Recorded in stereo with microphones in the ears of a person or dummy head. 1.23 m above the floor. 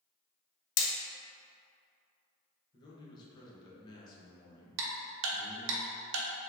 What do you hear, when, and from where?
0.8 s hammering: 70° left (ahead or behind), 0.6 m
2.7 s a man speaking: 25° left (ahead or behind), 1.1 m
4.8 s ticking: 65° right (ahead or behind), 0.8 m